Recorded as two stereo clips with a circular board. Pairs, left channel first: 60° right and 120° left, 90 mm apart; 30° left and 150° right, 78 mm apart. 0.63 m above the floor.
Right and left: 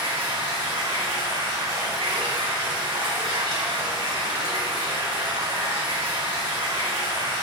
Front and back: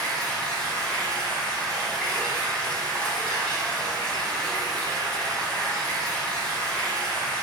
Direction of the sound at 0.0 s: 105° left.